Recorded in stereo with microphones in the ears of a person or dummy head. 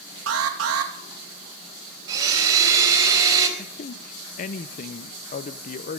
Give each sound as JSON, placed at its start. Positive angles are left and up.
{"t": 0.3, "sound": "an alarm", "side_deg": -75, "distance_m": 2.5}
{"t": 2.1, "sound": "a blender", "side_deg": -20, "distance_m": 4.0}
{"t": 3.6, "sound": "a man speaking", "side_deg": 50, "distance_m": 0.6}